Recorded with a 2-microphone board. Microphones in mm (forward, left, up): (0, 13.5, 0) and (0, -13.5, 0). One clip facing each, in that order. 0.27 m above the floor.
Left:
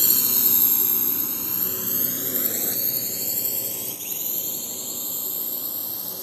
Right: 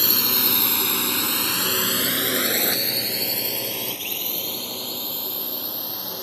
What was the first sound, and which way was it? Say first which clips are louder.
A drone: right 5 dB; 35° right (ahead or behind).